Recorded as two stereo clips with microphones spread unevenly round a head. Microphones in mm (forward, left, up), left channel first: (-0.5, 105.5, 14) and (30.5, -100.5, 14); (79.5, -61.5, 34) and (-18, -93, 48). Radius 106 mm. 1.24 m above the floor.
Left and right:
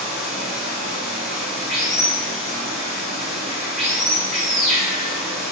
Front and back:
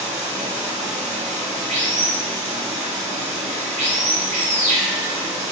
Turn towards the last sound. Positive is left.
turn(degrees=-170)